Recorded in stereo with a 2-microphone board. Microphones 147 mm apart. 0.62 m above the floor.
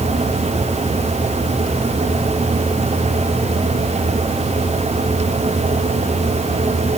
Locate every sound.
Only background noise.